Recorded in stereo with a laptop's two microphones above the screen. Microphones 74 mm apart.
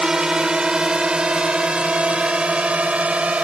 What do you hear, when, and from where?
0.0 s a drone: 10° right (ahead or behind); by 3.4 s 15° right (ahead or behind)